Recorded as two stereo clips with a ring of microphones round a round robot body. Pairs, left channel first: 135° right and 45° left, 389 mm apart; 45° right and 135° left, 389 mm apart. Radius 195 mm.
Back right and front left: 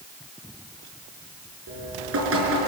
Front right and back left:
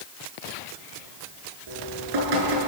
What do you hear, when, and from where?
1.7 s dripping: 100° left, 6 m